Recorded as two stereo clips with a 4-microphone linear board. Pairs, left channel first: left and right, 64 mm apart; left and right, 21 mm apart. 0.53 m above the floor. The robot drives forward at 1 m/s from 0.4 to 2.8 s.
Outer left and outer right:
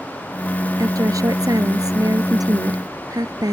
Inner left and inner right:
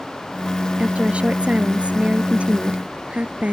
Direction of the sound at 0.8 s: 65° right (ahead or behind).